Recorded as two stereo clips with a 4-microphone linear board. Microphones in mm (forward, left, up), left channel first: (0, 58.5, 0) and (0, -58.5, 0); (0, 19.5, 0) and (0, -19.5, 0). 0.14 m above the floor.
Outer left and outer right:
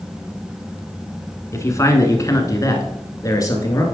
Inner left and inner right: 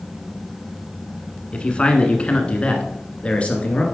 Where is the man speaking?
25° left (ahead or behind), 1.2 m; by 3.8 s 30° left (ahead or behind), 1.9 m.